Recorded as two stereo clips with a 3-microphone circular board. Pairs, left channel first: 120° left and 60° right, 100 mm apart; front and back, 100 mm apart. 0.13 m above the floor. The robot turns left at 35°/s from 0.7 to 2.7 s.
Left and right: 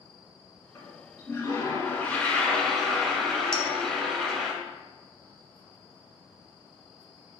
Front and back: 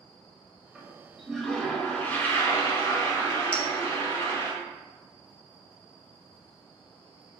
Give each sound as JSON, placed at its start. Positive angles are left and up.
{"t": 0.8, "sound": "a toilet flushing", "azimuth_deg": 100, "distance_m": 1.1}
{"t": 3.5, "sound": "a clink", "azimuth_deg": 50, "distance_m": 1.1}